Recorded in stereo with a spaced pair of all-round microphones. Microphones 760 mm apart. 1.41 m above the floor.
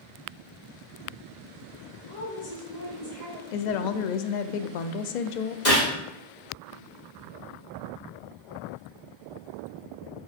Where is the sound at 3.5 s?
70° left (ahead or behind), 0.5 m.